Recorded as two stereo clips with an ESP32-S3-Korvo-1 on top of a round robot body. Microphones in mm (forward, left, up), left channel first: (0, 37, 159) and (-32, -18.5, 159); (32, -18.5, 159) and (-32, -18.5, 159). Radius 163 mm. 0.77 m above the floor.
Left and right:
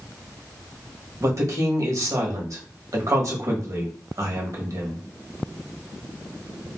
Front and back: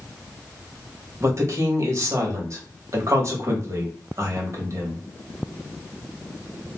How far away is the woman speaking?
About 1.3 m.